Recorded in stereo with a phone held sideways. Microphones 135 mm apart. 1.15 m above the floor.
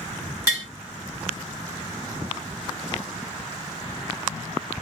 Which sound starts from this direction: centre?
Tapping, at 0.5 s.